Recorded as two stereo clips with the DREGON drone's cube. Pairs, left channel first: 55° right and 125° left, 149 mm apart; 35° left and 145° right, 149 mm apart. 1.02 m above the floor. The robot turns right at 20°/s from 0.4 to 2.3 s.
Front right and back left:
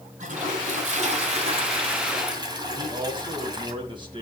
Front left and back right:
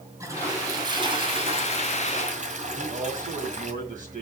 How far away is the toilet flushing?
About 2 m.